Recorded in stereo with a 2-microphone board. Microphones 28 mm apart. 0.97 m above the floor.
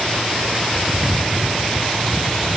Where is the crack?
I don't hear a crack.